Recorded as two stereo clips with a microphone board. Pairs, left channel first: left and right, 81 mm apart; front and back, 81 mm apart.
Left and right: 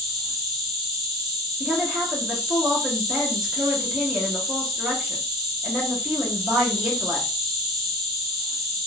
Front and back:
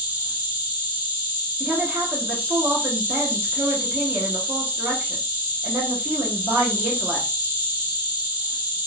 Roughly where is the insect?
Behind.